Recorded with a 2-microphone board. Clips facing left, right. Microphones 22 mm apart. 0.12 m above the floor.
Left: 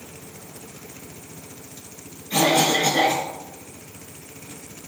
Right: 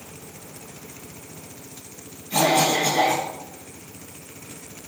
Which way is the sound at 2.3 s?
30° left (ahead or behind).